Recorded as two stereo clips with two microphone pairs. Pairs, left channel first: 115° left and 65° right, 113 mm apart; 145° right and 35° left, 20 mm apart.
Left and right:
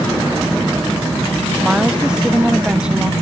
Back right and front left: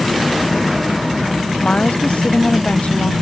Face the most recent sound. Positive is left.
turn(degrees=-150)